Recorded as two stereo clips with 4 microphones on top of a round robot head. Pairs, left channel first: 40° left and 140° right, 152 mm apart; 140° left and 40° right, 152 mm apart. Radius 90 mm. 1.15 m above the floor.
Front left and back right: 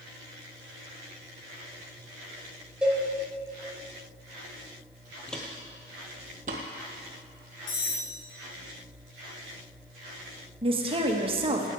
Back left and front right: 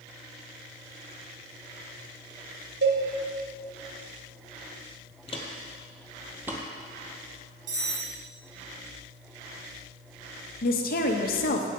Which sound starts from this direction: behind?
A woman speaking, at 10.6 s.